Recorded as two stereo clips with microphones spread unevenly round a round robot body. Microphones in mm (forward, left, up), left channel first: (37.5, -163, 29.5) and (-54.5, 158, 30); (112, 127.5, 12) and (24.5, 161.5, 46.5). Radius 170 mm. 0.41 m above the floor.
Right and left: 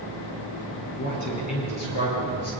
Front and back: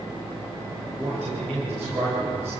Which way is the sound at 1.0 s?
115° right.